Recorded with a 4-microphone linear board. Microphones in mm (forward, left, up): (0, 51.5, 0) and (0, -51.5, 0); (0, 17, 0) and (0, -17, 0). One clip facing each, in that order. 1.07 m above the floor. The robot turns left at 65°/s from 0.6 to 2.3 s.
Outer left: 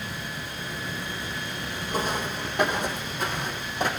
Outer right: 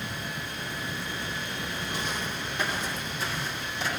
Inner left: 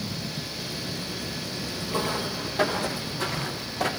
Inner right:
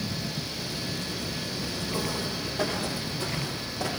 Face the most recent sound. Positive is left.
turn(degrees=55)  # may be behind; listen again after turning